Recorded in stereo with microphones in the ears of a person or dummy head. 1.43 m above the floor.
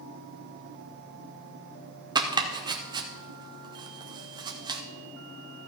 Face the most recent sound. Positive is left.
turn(degrees=-15)  # may be behind; listen again after turning